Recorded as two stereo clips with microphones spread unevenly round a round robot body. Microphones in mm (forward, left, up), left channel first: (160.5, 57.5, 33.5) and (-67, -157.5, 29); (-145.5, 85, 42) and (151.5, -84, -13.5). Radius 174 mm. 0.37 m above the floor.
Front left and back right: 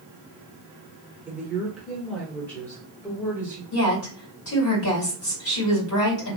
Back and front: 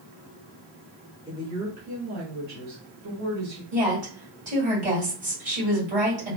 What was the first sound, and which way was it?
A woman speaking, 65° right.